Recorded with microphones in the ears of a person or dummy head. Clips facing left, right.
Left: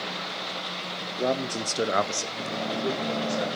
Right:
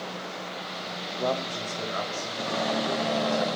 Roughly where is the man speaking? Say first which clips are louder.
Left 2 dB; centre.